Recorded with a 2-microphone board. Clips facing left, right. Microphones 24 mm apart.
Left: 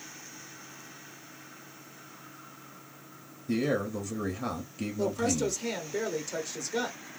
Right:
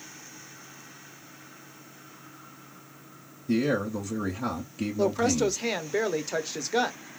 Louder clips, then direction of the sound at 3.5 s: Right 3 dB; 5° right (ahead or behind).